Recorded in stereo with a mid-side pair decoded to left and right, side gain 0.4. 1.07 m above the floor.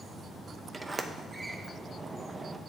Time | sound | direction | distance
0.7 | a sliding door | 30° right | 0.7 m